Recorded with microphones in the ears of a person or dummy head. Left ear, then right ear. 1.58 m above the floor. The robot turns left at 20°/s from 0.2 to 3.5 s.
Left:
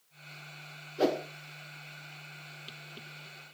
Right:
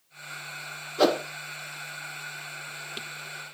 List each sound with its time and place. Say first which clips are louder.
1.0 s a whoosh: right 6 dB; 35° right (ahead or behind), 0.9 m; by 1.2 s 40° right (ahead or behind), 0.9 m